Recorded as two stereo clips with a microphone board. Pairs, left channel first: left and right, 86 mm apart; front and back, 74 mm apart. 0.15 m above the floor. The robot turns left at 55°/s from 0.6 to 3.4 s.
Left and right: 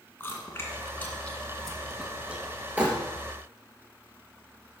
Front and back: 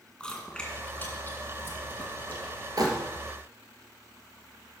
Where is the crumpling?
160° right, 2.5 m; by 2.9 s 165° right, 2.5 m.